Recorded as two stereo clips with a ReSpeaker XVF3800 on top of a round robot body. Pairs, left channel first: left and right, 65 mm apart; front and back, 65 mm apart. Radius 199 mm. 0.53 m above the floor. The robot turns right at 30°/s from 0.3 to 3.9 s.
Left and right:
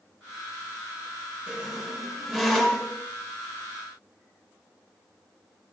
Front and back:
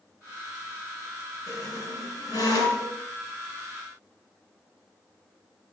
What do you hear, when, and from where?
1.5 s a squeak: 20° right, 4.5 m; by 3.0 s 25° left, 4.5 m